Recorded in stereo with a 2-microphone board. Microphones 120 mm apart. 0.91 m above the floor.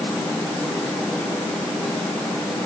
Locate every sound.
Only background noise.